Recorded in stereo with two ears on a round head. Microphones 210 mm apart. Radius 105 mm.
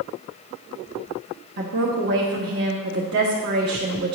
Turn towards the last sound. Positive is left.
turn(degrees=-45)  # may be behind; listen again after turning